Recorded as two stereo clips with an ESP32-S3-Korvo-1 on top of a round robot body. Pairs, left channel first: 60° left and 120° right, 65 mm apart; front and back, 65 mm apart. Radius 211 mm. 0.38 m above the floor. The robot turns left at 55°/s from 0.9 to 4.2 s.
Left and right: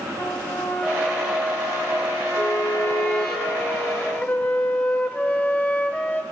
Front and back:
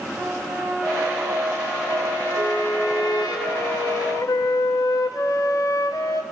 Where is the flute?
95° left, 1.0 m; by 6.2 s 5° right, 1.0 m.